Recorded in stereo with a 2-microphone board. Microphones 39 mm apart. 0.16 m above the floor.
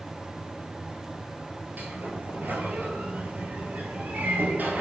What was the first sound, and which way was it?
A sliding door, 55° right (ahead or behind).